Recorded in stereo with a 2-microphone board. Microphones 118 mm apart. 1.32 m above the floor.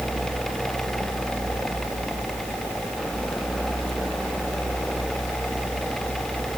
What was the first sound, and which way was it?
Only background noise.